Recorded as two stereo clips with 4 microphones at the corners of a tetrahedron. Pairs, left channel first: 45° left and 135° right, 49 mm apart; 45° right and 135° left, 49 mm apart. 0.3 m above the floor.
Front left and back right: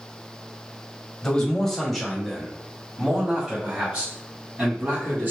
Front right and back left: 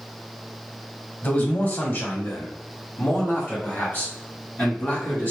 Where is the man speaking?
20° right, 1.6 m; by 5.3 s 90° right, 2.5 m.